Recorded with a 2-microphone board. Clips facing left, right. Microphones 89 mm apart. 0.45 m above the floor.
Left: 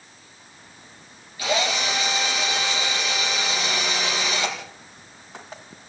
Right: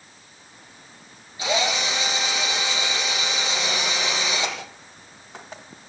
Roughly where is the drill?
Right.